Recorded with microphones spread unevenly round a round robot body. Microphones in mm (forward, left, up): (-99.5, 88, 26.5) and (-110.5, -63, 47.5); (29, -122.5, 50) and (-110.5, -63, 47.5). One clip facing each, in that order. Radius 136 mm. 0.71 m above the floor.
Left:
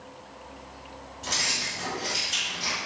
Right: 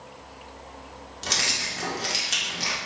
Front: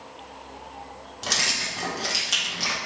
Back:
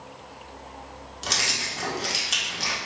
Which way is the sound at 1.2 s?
115° right.